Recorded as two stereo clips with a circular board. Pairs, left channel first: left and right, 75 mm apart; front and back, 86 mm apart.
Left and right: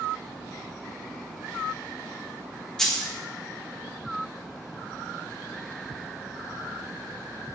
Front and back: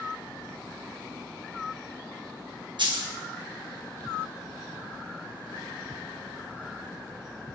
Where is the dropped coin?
175° left, 0.9 m.